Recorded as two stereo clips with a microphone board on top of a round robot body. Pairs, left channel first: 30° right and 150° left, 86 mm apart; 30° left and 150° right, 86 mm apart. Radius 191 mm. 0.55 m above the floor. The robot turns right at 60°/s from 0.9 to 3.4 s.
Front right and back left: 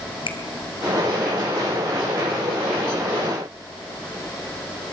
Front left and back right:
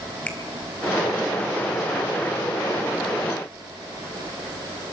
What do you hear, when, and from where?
0.3 s a finger snap: 45° right, 2.5 m